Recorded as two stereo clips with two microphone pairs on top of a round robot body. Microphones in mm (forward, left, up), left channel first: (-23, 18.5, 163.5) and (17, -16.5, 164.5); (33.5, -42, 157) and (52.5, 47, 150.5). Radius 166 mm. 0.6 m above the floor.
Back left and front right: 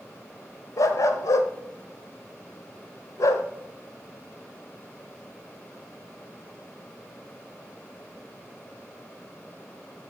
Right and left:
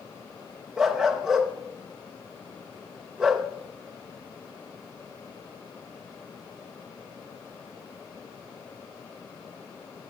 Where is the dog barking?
165° left, 0.6 m.